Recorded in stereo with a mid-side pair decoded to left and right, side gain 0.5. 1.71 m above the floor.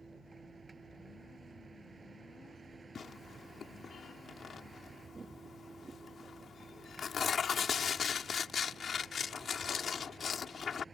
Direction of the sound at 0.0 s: 20° right.